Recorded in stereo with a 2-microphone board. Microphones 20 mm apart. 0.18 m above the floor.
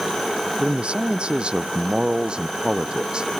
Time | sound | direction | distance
0.6 | a man speaking | 50° right (ahead or behind) | ?